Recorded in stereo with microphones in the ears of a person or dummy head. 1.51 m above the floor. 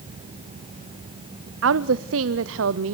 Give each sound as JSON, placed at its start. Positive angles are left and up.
{"t": 1.6, "sound": "a woman speaking", "side_deg": -80, "distance_m": 0.6}